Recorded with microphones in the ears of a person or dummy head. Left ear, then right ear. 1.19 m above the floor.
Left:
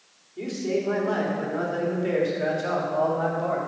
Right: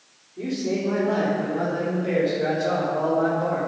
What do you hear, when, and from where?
0.4 s a man speaking: 80° left, 3.5 m; by 3.7 s 50° left (ahead or behind), 2.5 m